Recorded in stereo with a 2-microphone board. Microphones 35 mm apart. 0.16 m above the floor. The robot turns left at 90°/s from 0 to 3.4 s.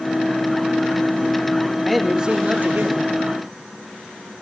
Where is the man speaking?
5° left, 4 m; by 3.1 s 110° right, 4 m.